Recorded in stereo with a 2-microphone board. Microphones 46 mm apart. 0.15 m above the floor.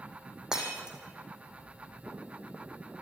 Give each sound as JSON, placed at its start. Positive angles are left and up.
{"t": 0.5, "sound": "breaking glass", "side_deg": -15, "distance_m": 4.5}